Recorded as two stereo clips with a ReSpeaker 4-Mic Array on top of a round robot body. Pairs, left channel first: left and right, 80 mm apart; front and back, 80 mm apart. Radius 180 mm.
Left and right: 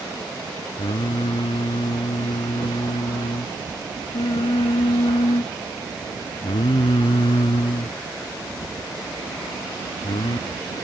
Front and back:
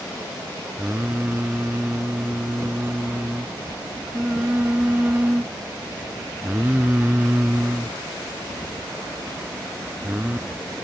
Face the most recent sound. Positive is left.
turn(degrees=105)